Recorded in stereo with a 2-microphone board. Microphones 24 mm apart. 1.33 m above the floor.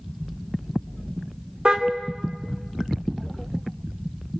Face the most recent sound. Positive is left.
turn(degrees=-30)  # may be behind; listen again after turning